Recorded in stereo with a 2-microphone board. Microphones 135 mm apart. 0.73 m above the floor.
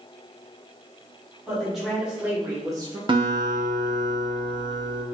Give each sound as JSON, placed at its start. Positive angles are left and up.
{"t": 1.5, "sound": "a woman speaking", "side_deg": 0, "distance_m": 1.8}
{"t": 3.1, "sound": "a guitar", "side_deg": -40, "distance_m": 0.6}